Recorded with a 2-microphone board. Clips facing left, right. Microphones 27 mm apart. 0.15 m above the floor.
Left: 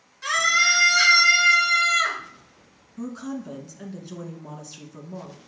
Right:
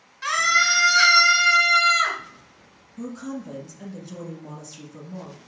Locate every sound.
0.2 s a scream: 25° right (ahead or behind), 1.5 m
3.0 s a woman speaking: 20° left (ahead or behind), 1.3 m